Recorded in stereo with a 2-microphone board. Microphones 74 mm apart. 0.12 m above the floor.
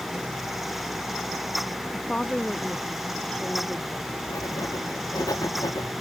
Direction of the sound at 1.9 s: 10° left (ahead or behind).